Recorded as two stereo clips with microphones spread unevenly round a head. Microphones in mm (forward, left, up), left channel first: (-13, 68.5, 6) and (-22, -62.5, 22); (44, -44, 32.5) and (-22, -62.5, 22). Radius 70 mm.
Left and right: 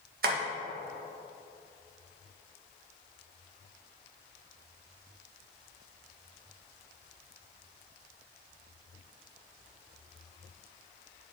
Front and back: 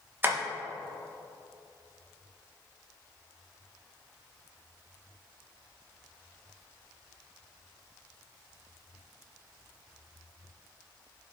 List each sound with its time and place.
0.2 s tapping: 105° right, 1.7 m